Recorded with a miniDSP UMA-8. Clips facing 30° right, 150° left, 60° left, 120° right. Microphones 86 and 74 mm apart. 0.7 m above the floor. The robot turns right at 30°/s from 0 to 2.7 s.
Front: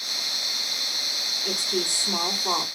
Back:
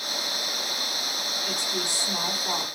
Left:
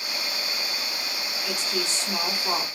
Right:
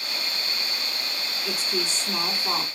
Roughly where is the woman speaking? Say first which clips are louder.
Front 5 dB, right 1 dB; ahead right.